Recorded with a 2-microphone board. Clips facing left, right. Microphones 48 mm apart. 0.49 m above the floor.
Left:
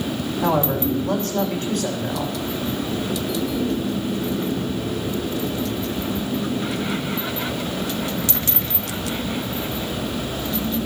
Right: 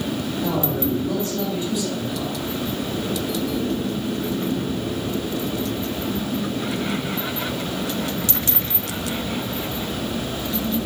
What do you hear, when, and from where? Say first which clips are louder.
0.4 s a man speaking: left 4 dB; 65° left (ahead or behind), 4 m